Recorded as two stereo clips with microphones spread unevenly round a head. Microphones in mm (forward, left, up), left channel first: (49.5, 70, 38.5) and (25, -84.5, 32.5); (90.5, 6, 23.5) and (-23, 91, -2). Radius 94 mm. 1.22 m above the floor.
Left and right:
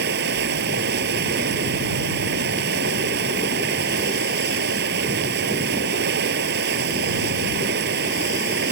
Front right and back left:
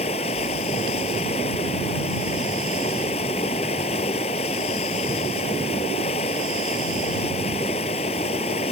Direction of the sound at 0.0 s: 95° right.